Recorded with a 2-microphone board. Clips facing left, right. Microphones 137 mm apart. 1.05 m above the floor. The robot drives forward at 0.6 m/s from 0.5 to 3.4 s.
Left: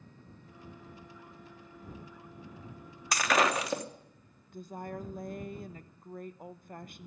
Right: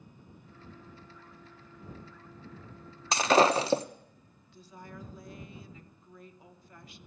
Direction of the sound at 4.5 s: 50° left (ahead or behind).